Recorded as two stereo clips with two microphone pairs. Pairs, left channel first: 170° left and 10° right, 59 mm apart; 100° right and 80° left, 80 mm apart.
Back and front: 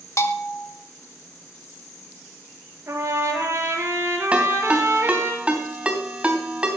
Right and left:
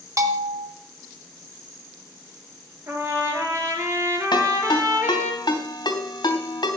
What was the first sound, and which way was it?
A bell, 130° left.